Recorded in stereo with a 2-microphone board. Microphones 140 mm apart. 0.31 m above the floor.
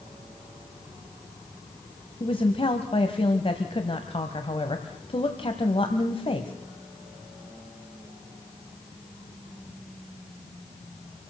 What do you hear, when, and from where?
2.2 s a woman speaking: 40° left (ahead or behind), 1.5 m